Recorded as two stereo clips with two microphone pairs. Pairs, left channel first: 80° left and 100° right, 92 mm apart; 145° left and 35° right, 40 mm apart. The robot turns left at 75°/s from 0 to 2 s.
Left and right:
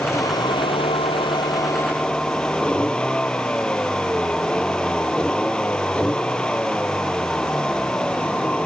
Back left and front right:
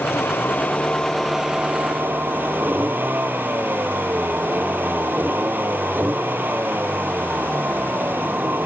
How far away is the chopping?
No chopping in this recording.